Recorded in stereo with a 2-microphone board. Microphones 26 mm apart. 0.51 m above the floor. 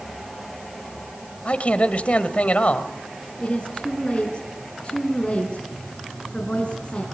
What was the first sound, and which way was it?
A man speaking, 55° left (ahead or behind).